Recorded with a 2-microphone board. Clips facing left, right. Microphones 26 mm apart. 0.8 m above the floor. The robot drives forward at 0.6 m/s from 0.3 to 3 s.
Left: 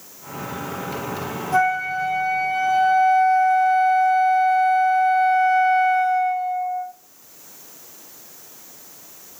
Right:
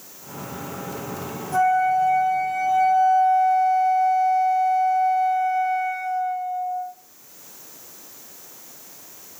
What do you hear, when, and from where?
1.5 s a flute: 30° left (ahead or behind), 1.7 m; by 6.9 s 55° left (ahead or behind), 1.1 m